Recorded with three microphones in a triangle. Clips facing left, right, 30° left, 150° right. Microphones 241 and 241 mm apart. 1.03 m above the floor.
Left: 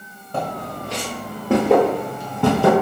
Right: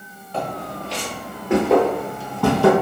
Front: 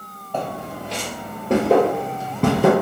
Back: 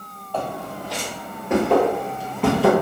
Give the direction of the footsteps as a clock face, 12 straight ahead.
9 o'clock.